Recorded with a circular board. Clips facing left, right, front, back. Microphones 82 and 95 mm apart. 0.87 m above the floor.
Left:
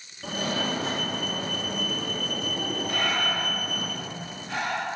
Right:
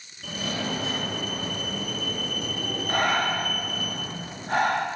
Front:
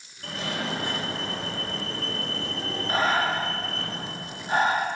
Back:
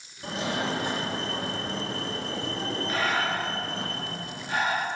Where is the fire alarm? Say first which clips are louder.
Left 2 dB, back 2 dB; 115° left, 2.5 m.